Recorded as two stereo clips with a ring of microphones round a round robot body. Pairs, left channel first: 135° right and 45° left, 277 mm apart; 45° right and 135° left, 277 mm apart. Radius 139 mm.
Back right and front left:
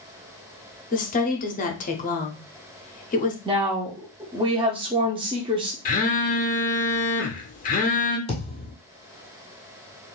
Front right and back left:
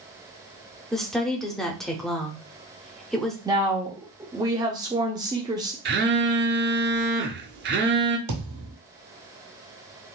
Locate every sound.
0.9 s a woman speaking: 130° right, 0.7 m
3.5 s a woman speaking: 85° left, 0.7 m
5.8 s a phone buzzing: 175° left, 0.7 m
8.3 s a thud: 155° left, 1.9 m